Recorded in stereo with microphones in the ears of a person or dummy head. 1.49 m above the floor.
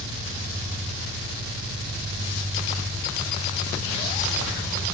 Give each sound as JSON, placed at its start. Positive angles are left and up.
{"t": 0.0, "sound": "an engine running", "side_deg": -30, "distance_m": 1.1}